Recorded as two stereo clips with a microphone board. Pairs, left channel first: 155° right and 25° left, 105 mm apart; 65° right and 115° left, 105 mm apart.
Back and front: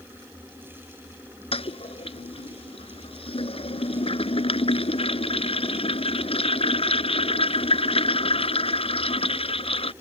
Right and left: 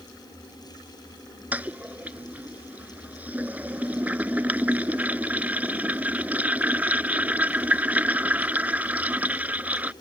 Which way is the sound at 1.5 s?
175° right.